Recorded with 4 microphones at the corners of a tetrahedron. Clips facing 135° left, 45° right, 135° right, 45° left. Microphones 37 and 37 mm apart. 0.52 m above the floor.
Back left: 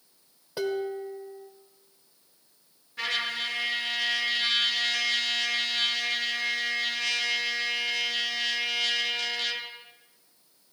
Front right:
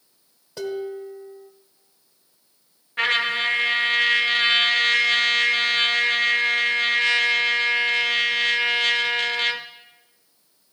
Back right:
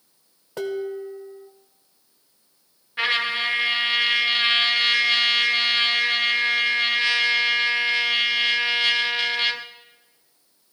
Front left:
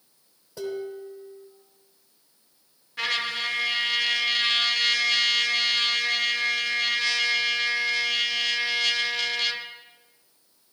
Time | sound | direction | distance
0.6 | dishes clattering | 150° right | 0.9 m
3.0 | a trumpet | 75° right | 0.6 m